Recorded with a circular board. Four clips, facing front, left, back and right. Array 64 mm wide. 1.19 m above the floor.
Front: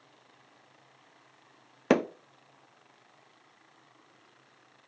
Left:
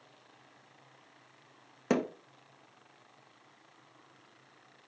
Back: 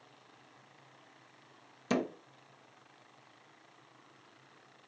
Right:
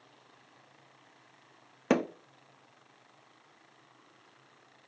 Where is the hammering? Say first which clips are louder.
Right 2 dB, front 7 dB; 10° right, 0.5 m.